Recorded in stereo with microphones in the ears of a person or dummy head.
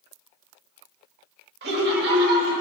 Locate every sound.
1.6 s laughter: 60° right (ahead or behind), 1.7 m; by 2.6 s 45° right (ahead or behind), 1.3 m